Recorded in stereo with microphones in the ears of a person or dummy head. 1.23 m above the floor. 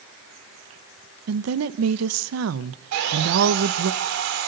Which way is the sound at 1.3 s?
80° right.